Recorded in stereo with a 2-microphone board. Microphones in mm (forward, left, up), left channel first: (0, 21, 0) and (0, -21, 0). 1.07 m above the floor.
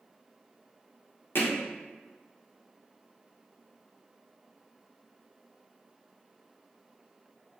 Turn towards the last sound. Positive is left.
turn(degrees=60)  # may be behind; listen again after turning